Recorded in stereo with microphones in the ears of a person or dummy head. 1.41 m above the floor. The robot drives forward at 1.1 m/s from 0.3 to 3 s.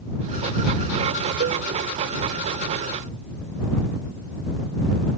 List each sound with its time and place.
1.4 s a cowbell: 45° right (ahead or behind), 0.7 m